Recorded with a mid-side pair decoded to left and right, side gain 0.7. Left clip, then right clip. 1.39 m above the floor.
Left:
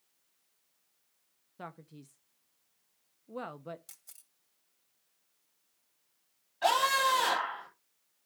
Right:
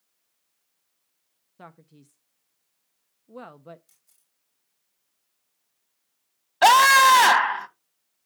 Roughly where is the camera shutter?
Ahead left.